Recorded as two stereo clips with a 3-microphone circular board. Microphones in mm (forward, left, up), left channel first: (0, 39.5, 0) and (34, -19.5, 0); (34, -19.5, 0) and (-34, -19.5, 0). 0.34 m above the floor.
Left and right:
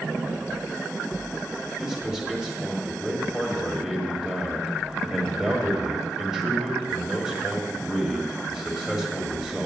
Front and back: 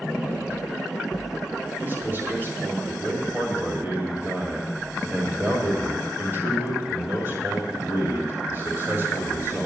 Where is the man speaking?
140° right, 1.9 m.